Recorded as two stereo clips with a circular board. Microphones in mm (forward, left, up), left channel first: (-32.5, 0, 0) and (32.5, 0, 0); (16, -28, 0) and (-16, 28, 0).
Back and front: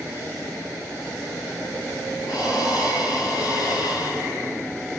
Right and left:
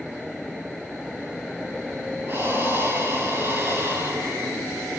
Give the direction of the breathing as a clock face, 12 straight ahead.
6 o'clock.